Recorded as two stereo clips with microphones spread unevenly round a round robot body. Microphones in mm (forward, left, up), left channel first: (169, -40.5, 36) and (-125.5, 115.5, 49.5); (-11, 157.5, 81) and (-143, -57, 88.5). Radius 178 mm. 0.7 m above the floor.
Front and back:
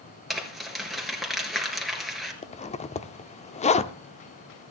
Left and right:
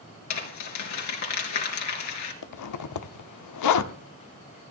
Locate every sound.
0.3 s crumpling: 65° left, 3.5 m
2.4 s a zipper: 45° left, 0.8 m